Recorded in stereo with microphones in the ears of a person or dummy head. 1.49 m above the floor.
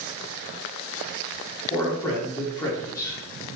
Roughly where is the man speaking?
Centre.